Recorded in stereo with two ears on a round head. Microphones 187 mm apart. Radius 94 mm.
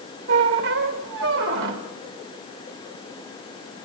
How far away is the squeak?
About 2.5 m.